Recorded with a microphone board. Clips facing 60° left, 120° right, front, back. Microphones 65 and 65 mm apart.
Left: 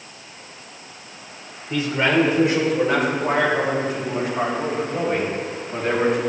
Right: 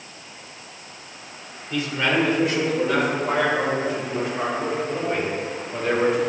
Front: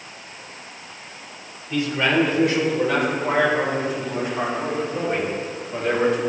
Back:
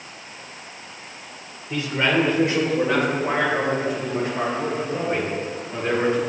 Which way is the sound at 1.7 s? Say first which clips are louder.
Left 3 dB, front 1 dB; 120° left.